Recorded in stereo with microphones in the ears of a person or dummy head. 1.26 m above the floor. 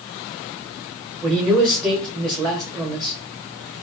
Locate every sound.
1.2 s a man speaking: 20° right (ahead or behind), 1.0 m